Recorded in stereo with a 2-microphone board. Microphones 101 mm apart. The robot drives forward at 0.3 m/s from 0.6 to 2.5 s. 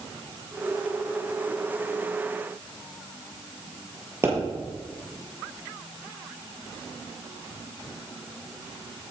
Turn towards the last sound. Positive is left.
turn(degrees=-25)  # may be behind; listen again after turning